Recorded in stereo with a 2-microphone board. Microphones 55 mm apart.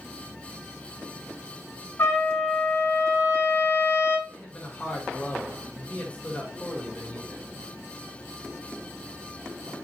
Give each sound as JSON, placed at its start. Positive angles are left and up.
{"t": 2.0, "sound": "a trumpet", "side_deg": 45, "distance_m": 1.3}
{"t": 4.3, "sound": "a man speaking", "side_deg": 20, "distance_m": 1.2}